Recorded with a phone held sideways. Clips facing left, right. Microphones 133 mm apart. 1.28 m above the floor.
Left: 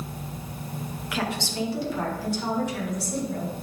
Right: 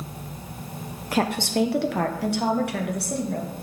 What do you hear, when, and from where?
1.1 s a woman speaking: 40° right (ahead or behind), 0.6 m; by 3.5 s 60° right (ahead or behind), 1.9 m